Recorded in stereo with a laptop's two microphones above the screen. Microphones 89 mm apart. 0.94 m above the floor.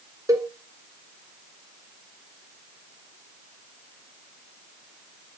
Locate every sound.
0.3 s a cowbell: 35° right (ahead or behind), 1.3 m